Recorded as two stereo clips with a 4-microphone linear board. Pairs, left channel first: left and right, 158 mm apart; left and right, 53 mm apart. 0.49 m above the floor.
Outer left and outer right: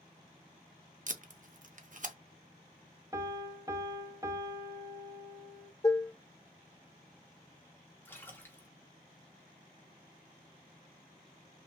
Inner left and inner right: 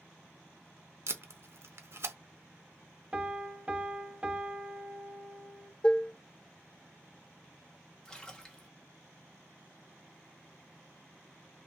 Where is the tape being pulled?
55° right (ahead or behind), 0.6 m.